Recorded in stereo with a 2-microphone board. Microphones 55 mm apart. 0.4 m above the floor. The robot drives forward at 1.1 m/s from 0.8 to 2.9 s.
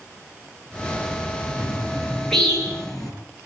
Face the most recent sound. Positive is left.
turn(degrees=10)  # may be behind; listen again after turning